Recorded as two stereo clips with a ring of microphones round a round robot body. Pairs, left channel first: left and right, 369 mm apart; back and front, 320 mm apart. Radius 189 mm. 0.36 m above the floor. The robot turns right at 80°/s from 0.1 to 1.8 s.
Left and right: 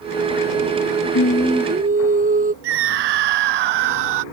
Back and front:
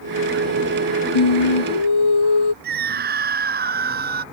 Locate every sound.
1.1 s singing: 145° left; by 2.5 s 160° right
2.6 s a scream: 65° right